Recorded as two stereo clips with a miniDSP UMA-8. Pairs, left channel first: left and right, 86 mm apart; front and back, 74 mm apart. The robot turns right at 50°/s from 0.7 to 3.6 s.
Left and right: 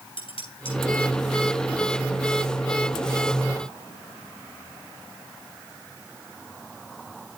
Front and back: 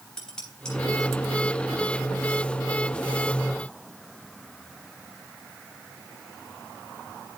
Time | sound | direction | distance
0.2 | dishes clattering | 80° left | 7.5 m